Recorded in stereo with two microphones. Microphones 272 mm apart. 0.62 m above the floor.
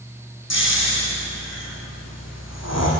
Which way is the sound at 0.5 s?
65° left (ahead or behind).